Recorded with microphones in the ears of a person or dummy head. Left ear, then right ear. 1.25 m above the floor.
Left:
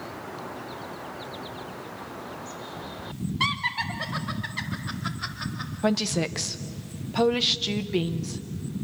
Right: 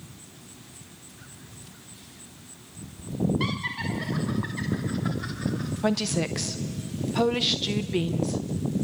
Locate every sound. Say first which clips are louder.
3.4 s laughter: left 4 dB; 30° left (ahead or behind), 1.6 m
5.8 s a woman speaking: left 1 dB; centre (ahead or behind), 0.5 m